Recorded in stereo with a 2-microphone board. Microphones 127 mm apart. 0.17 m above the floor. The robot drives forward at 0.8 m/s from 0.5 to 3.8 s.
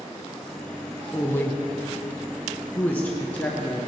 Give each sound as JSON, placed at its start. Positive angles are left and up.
{"t": 1.1, "sound": "a woman speaking", "side_deg": 20, "distance_m": 1.1}